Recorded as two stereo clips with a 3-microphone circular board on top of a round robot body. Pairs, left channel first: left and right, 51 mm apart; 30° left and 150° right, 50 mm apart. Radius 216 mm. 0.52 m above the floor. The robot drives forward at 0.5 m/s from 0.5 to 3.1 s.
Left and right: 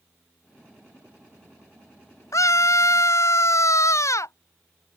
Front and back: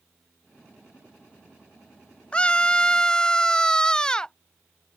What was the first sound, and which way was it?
A scream, 100° left.